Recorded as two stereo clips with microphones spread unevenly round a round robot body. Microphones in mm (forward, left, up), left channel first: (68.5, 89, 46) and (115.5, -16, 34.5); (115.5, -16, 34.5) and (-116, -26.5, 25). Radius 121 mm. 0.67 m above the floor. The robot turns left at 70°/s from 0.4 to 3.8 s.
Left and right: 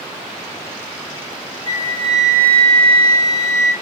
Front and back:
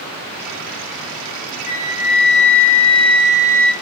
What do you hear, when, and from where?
1.7 s a flute: 55° left, 1.6 m; by 3.7 s 90° right, 1.6 m